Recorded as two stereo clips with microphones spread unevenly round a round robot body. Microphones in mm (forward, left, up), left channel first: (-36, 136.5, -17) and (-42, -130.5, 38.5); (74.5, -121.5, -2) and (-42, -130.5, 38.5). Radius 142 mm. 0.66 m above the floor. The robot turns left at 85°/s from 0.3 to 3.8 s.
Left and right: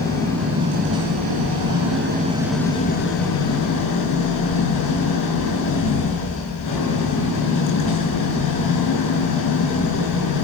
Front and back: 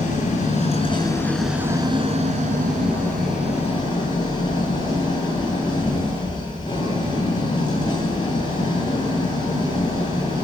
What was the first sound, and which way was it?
An engine running, 10° left.